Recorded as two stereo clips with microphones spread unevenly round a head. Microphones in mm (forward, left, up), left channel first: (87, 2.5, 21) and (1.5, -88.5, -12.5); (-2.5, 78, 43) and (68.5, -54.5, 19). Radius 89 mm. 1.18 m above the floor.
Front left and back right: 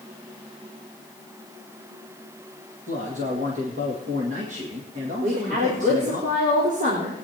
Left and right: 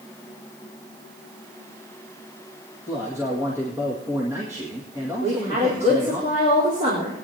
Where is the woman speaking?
125° right, 4 m.